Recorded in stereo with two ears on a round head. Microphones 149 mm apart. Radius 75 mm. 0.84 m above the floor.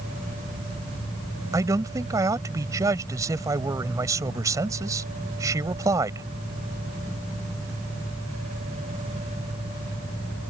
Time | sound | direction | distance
1.5 | a man speaking | 20° right (ahead or behind) | ?